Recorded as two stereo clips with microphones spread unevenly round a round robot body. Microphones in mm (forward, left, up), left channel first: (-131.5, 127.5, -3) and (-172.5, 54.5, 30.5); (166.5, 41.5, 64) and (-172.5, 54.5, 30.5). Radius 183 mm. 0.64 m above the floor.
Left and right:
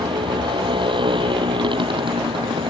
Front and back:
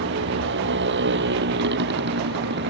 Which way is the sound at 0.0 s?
125° right.